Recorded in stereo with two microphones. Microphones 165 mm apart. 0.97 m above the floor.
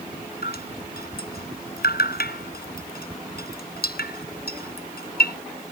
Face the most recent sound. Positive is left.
turn(degrees=85)